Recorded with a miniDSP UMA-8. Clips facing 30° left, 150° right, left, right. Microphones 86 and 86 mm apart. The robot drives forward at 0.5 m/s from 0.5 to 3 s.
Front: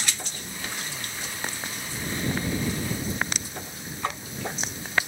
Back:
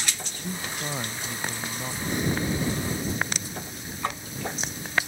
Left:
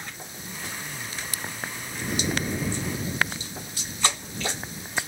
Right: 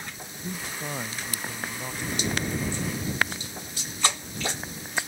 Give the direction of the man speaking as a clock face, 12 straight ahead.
4 o'clock.